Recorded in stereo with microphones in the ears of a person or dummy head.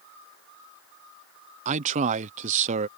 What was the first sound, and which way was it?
A man speaking, 40° right (ahead or behind).